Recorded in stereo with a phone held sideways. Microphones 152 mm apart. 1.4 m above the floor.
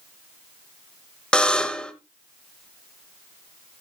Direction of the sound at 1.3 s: 5° left (ahead or behind).